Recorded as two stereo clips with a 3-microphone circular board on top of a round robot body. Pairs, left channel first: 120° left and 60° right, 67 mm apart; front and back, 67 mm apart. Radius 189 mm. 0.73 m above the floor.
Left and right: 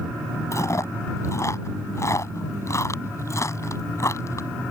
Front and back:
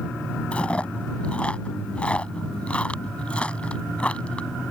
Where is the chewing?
75° left.